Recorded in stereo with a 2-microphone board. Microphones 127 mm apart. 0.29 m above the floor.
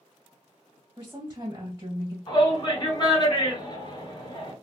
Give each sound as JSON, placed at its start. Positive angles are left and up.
{"t": 1.0, "sound": "a woman speaking", "side_deg": -25, "distance_m": 1.4}
{"t": 2.3, "sound": "a shout", "side_deg": 35, "distance_m": 1.8}